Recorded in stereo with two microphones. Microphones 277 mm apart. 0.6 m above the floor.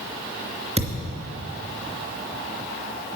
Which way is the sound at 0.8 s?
25° right (ahead or behind).